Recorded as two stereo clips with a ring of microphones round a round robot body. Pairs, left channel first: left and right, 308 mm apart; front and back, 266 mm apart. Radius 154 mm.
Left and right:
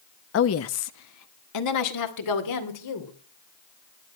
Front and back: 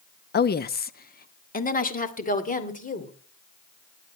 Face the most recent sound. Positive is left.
turn(degrees=60)